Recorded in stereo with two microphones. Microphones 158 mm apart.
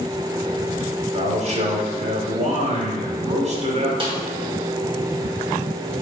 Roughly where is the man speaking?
Right.